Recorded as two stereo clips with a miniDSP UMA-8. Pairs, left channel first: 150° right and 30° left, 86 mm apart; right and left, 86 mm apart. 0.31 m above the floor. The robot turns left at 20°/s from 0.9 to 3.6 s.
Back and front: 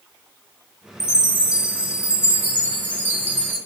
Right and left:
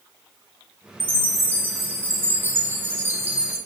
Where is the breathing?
No breathing in this recording.